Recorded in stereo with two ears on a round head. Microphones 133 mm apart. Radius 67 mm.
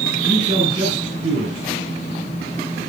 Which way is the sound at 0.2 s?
40° right (ahead or behind).